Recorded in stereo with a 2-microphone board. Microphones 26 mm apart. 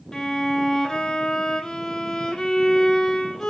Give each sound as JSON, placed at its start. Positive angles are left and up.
{"t": 0.1, "sound": "a violin", "side_deg": 20, "distance_m": 0.9}